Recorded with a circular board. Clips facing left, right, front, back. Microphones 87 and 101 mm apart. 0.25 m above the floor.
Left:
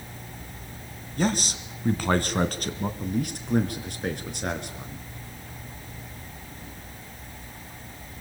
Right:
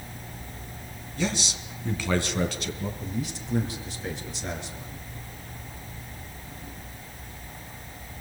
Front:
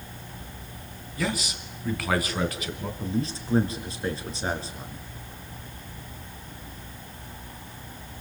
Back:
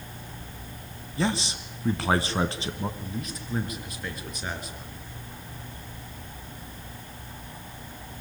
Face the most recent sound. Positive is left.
turn(degrees=60)